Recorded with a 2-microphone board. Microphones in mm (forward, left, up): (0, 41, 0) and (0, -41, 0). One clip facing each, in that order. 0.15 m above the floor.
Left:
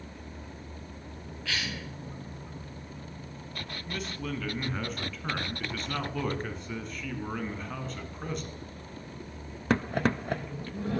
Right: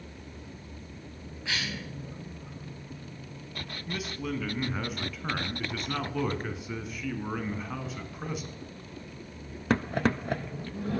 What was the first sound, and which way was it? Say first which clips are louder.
A cough: right 1 dB; 20° right (ahead or behind).